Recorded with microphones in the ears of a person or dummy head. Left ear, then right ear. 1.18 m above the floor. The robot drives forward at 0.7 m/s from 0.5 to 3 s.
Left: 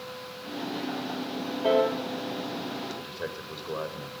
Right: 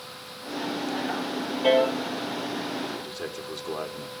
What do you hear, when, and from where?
1.6 s a piano: 65° right (ahead or behind), 4.5 m; by 2.0 s 70° right (ahead or behind), 4.5 m
3.0 s a man speaking: 80° right, 3.5 m